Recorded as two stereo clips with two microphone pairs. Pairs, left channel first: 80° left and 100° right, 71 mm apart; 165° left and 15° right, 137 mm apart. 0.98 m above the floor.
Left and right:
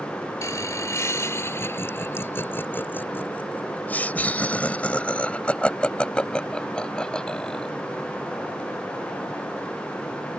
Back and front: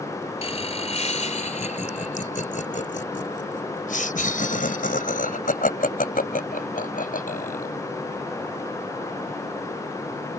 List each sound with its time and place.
0.4 s laughter: 125° left; by 7.8 s 160° left